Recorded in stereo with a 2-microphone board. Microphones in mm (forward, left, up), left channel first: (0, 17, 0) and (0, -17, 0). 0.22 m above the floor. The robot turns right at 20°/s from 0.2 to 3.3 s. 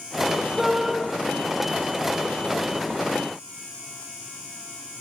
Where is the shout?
Centre (ahead or behind), 7 m; by 0.9 s 5° right (ahead or behind), 7 m.